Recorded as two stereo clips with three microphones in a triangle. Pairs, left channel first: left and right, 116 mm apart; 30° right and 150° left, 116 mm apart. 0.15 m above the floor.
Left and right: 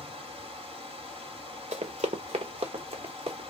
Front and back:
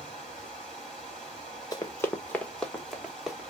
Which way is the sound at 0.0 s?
115° right.